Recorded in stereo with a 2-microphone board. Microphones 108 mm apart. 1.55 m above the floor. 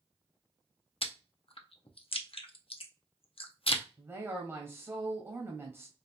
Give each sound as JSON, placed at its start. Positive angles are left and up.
{"t": 1.0, "sound": "chewing", "side_deg": 60, "distance_m": 0.5}
{"t": 4.0, "sound": "a woman speaking", "side_deg": -20, "distance_m": 1.3}